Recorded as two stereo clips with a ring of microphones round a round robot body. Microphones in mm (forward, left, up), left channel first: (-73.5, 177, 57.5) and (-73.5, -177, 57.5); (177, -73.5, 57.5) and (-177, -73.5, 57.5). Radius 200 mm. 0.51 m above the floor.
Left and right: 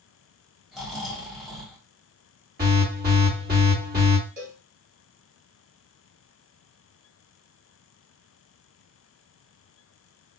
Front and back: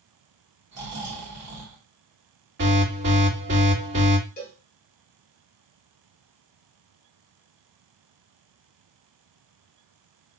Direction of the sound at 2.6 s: 140° right.